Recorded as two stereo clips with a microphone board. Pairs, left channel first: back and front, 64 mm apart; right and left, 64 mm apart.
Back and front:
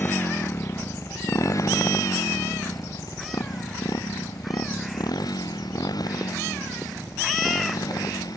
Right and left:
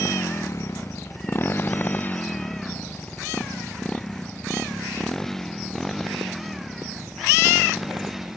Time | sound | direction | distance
0.0 | a motorcycle | 125° right | ?